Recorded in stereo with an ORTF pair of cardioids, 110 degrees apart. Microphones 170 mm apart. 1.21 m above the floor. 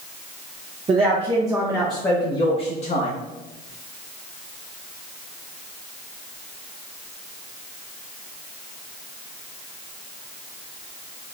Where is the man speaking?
40° right, 1.1 m; by 3.2 s 55° left, 1.1 m.